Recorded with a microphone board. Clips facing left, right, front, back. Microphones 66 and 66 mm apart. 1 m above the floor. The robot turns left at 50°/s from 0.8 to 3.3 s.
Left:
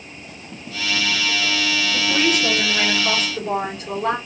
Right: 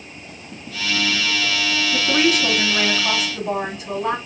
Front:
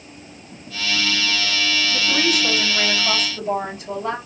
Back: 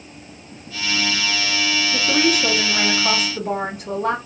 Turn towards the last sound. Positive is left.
turn(degrees=-170)